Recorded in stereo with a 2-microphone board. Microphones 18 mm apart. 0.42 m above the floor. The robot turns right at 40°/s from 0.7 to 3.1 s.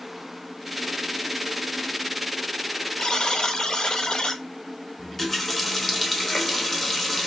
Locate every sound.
3.0 s a buzzer: 45° left (ahead or behind), 0.5 m; by 4.4 s 50° left (ahead or behind), 0.5 m
5.0 s a running tap: 10° left (ahead or behind), 0.7 m